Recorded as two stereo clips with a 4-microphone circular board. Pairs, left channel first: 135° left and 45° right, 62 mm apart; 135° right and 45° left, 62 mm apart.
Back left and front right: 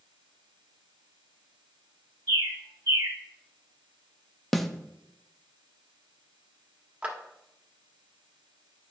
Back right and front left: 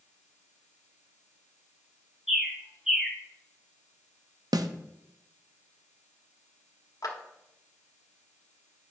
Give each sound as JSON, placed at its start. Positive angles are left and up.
{"t": 2.3, "sound": "a bird", "azimuth_deg": -35, "distance_m": 1.5}
{"t": 4.5, "sound": "a snare drum", "azimuth_deg": 50, "distance_m": 0.5}
{"t": 7.0, "sound": "a clap", "azimuth_deg": -115, "distance_m": 1.3}